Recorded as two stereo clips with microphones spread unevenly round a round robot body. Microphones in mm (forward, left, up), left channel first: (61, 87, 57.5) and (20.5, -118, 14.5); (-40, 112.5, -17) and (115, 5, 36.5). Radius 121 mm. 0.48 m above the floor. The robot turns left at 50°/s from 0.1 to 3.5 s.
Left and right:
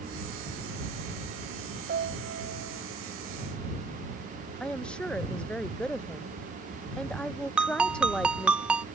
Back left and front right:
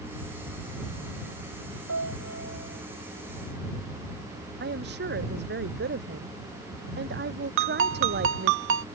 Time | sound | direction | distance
1.9 | a piano | 55° right | ?
4.6 | a woman speaking | 5° right | ?
7.6 | a ringtone | 25° right | ?